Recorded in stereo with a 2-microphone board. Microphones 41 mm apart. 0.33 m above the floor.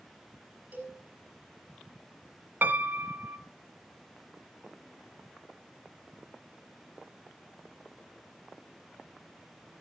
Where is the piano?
50° right (ahead or behind), 1.2 m.